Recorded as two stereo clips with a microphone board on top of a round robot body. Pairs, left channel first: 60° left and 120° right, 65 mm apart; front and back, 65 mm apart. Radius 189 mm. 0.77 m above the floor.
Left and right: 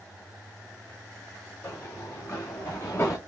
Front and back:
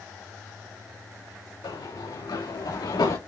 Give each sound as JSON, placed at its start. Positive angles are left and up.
{"t": 1.6, "sound": "running footsteps", "azimuth_deg": 10, "distance_m": 5.0}